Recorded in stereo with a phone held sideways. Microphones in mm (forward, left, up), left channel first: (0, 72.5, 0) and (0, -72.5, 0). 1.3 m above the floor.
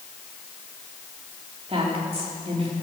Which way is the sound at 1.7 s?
40° right (ahead or behind).